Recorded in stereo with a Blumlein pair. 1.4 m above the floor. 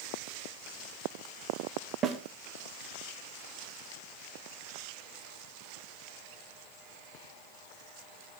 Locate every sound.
2.0 s a snare drum: 30° right, 1.9 m